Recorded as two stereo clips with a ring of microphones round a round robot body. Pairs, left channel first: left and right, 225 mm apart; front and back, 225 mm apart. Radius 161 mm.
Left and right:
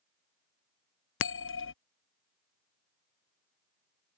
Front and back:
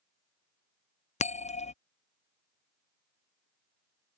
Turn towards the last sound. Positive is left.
turn(degrees=60)